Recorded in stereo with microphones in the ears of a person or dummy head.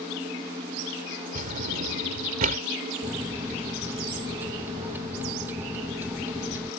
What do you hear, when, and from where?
1.4 s a drawer: 50° right (ahead or behind)
3.0 s a microwave: 10° right (ahead or behind)